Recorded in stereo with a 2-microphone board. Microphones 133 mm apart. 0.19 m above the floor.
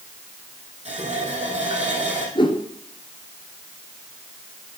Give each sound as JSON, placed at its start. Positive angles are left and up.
{"t": 0.8, "sound": "a running tap", "side_deg": -55, "distance_m": 4.5}
{"t": 2.4, "sound": "a whoosh", "side_deg": 40, "distance_m": 1.8}